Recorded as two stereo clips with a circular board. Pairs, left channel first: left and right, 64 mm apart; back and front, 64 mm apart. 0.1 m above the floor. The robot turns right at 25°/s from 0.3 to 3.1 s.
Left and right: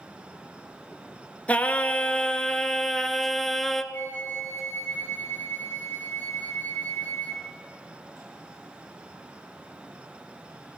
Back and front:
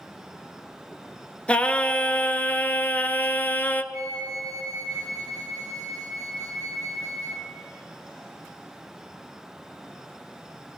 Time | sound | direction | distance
1.5 | singing | 130° left | 0.6 m
3.9 | a flute | 25° left | 1.7 m